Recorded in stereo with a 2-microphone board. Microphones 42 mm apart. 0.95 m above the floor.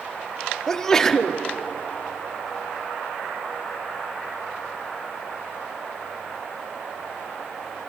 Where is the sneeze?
15° left (ahead or behind), 1.6 m.